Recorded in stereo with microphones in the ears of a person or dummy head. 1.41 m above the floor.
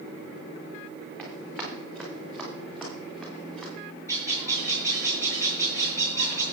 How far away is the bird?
About 7.5 m.